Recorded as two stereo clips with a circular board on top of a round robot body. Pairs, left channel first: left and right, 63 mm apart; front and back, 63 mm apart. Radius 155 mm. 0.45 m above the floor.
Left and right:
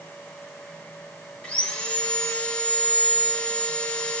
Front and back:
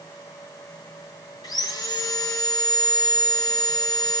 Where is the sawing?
20° left, 1.7 m.